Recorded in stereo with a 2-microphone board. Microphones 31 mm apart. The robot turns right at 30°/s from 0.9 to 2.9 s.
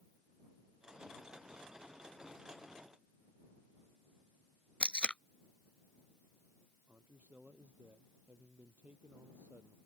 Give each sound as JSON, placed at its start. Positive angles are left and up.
{"t": 4.8, "sound": "tape being pulled", "side_deg": 45}
{"t": 6.9, "sound": "a man speaking", "side_deg": -60}